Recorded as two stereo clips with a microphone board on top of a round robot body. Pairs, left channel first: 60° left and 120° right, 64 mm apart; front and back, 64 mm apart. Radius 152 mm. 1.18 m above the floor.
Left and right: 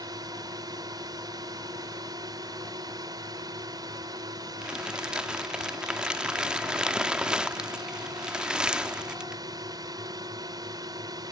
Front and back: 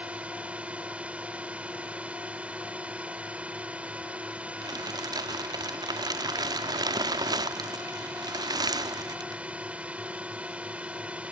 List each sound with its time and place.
0.0 s a drone: 110° right
4.6 s crumpling: 165° left